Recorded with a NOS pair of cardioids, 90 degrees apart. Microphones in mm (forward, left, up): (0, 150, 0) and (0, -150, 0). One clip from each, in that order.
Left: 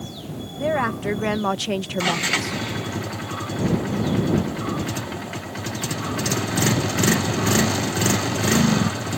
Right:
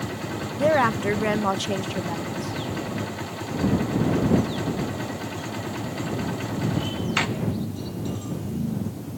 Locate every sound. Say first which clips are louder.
0.6 s a woman speaking: right 3 dB; 25° right; by 2.6 s 60° left